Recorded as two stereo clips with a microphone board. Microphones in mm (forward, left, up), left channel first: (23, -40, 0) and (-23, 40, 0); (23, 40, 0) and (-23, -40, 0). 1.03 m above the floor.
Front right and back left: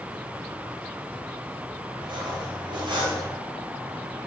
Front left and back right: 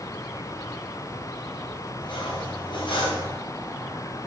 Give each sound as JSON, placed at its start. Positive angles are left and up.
{"t": 2.0, "sound": "cutlery clinking", "azimuth_deg": 90, "distance_m": 4.0}